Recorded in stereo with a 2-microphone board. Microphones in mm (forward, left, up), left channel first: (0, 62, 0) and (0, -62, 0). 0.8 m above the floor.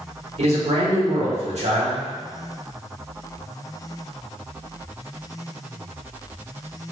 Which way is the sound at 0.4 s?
60° right (ahead or behind).